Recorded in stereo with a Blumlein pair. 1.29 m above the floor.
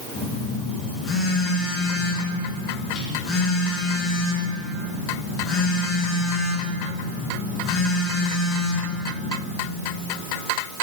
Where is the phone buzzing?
25° left, 1.3 m.